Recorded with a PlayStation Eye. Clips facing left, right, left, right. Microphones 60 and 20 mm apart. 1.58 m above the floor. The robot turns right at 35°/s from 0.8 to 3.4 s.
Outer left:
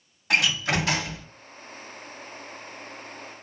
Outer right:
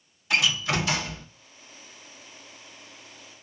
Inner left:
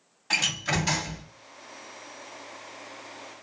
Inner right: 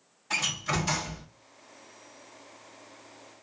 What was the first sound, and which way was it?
A door slam, 65° left (ahead or behind).